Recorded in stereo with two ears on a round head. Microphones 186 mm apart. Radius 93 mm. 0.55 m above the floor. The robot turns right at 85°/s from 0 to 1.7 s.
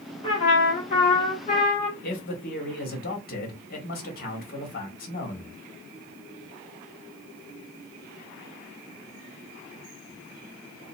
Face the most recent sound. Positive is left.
turn(degrees=50)  # may be behind; listen again after turning